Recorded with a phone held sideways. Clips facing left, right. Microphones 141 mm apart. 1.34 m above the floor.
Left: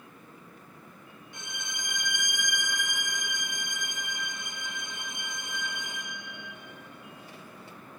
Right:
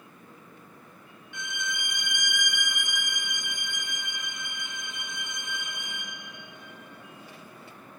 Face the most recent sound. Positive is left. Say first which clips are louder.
# right 7 dB
turn(degrees=35)  # may be behind; listen again after turning